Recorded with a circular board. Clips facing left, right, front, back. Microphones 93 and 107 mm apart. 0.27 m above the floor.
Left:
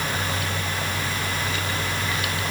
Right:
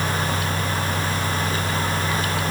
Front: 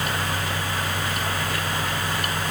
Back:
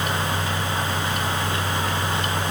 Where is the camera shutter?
No camera shutter in this recording.